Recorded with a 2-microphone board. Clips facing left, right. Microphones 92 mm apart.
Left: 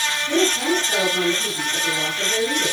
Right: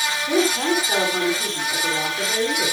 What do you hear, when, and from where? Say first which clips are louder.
0.3 s a woman speaking: even; 20° right (ahead or behind), 7.5 m